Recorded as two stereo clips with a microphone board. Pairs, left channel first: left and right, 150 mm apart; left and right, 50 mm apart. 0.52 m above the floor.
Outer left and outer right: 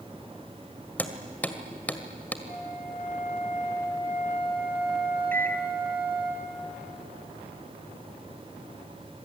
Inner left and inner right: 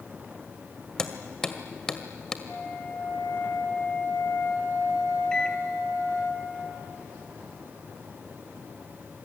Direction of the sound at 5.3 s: 15° left (ahead or behind).